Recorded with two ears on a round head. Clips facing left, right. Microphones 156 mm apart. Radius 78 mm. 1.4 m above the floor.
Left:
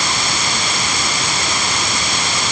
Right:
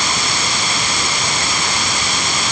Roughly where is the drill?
I don't hear a drill.